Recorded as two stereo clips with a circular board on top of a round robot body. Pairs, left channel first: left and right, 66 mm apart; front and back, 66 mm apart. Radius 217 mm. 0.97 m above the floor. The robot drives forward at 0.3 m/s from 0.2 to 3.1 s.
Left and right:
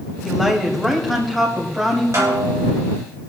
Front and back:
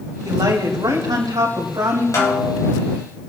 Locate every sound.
0.2 s a woman speaking: straight behind, 2.5 m
2.1 s a snare drum: 45° right, 2.5 m; by 2.7 s 50° right, 2.5 m